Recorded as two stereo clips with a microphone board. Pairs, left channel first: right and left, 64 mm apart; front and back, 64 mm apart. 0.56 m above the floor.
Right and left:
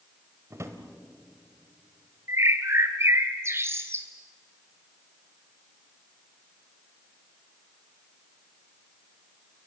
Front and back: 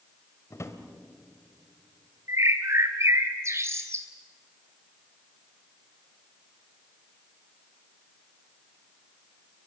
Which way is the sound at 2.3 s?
135° left.